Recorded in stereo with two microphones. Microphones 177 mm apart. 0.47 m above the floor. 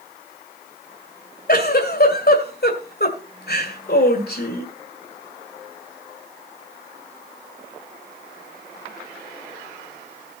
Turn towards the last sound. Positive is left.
turn(degrees=60)  # may be behind; listen again after turning